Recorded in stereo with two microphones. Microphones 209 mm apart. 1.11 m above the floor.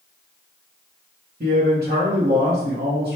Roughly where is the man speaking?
Right.